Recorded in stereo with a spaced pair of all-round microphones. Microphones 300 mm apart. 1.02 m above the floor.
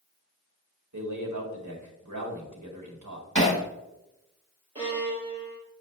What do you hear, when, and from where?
0.9 s a man speaking: 70° right (ahead or behind), 1.9 m
3.4 s hammering: 65° right (ahead or behind), 2.5 m
4.8 s a violin: 15° right (ahead or behind), 3.5 m